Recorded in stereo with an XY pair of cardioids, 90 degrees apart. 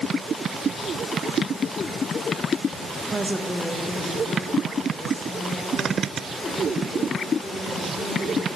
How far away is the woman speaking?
About 0.6 m.